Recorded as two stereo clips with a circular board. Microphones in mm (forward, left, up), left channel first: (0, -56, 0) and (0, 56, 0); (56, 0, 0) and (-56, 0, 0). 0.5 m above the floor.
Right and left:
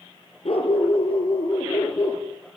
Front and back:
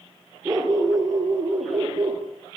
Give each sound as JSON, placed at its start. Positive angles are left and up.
{"t": 0.5, "sound": "a dog barking", "azimuth_deg": -125, "distance_m": 5.0}